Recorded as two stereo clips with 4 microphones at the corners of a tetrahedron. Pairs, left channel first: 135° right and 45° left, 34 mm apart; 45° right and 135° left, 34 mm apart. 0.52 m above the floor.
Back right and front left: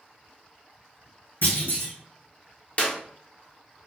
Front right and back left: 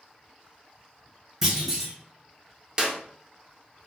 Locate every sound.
1.4 s a clunk: 140° right, 1.8 m
2.8 s a clap: 170° right, 0.6 m